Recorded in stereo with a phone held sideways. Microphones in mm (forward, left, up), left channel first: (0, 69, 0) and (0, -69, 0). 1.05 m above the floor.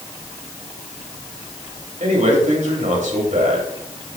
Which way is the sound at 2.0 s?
70° right (ahead or behind).